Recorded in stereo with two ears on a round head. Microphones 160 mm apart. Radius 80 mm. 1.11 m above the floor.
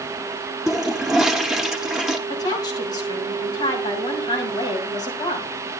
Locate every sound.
0.7 s a toilet flushing: 5° right (ahead or behind), 0.7 m
2.3 s a woman speaking: 25° left (ahead or behind), 3 m